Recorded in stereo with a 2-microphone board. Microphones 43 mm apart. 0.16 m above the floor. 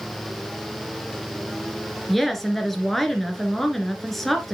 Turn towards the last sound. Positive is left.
turn(degrees=5)  # may be behind; listen again after turning